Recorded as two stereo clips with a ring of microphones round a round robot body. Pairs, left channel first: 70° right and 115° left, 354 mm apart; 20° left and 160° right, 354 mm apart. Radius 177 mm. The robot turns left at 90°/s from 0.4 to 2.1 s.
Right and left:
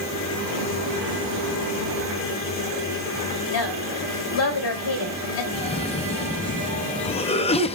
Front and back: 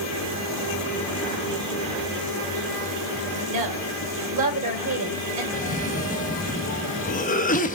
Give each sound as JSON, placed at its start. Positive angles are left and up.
{"t": 3.5, "sound": "a woman speaking", "azimuth_deg": -115, "distance_m": 3.0}
{"t": 5.5, "sound": "a cough", "azimuth_deg": -15, "distance_m": 0.6}